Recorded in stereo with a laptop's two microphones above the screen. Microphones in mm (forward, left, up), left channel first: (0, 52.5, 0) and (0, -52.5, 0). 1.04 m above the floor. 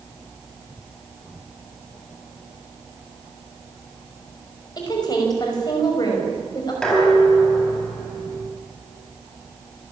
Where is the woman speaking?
40° left (ahead or behind), 5.5 m.